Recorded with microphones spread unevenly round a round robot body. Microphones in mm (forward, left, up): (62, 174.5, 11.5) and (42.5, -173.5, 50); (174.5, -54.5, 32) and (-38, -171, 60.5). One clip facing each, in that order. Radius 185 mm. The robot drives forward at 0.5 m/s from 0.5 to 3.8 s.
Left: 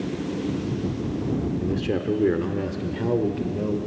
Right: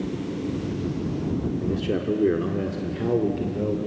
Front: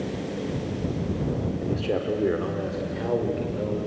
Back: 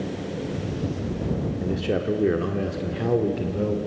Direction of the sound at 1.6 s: 135° left.